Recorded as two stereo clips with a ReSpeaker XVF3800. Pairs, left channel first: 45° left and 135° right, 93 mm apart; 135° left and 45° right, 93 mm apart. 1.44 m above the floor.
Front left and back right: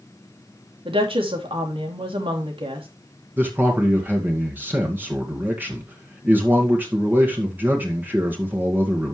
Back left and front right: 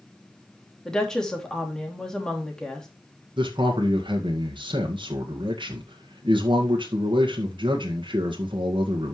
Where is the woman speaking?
140° right, 3 m.